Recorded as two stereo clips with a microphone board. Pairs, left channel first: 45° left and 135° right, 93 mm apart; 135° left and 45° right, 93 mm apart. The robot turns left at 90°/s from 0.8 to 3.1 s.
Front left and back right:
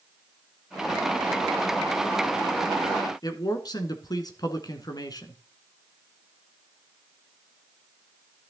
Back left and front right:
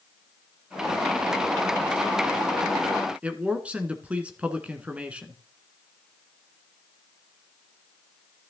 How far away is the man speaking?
About 1.5 m.